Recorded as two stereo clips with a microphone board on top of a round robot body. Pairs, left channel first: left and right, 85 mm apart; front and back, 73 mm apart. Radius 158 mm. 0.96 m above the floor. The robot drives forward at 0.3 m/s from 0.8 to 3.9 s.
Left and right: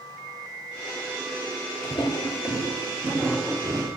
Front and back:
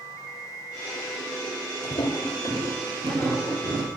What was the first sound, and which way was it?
Footsteps, 40° left.